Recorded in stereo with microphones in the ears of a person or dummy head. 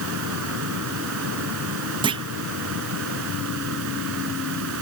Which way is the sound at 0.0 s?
75° right (ahead or behind).